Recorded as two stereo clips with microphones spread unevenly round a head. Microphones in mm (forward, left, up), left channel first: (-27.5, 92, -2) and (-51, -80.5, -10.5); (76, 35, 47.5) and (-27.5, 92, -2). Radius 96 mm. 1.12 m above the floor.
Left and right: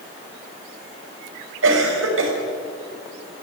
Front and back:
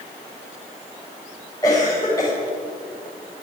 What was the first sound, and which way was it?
A cough, 100° right.